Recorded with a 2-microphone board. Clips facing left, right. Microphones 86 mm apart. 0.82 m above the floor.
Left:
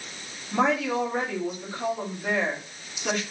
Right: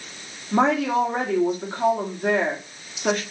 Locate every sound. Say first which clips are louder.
0.5 s a woman speaking: right 4 dB; 45° right (ahead or behind), 2.5 m